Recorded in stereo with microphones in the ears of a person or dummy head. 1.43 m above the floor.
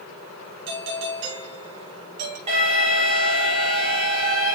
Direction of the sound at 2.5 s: 35° right (ahead or behind).